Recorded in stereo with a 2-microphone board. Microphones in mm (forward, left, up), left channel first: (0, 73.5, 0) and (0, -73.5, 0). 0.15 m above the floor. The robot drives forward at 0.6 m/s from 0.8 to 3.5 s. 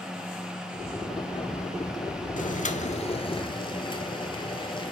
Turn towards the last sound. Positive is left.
turn(degrees=35)  # may be behind; listen again after turning